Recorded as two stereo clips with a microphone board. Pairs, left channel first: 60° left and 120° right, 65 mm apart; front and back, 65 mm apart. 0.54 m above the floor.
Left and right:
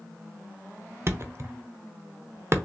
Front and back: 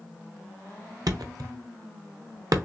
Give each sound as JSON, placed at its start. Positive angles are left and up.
{"t": 1.1, "sound": "a thud", "azimuth_deg": -165, "distance_m": 0.6}